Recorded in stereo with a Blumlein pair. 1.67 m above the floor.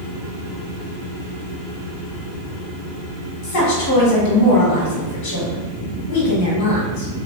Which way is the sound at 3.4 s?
50° left.